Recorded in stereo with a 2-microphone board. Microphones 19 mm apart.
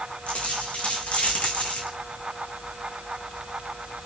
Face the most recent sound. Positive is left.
turn(degrees=90)